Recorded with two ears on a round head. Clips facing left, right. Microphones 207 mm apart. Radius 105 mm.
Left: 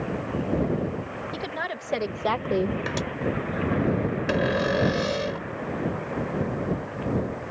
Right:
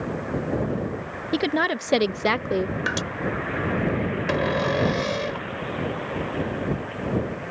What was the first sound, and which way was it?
A woman speaking, 65° right (ahead or behind).